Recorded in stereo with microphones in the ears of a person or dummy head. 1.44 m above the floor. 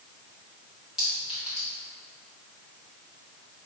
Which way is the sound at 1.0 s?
5° right (ahead or behind).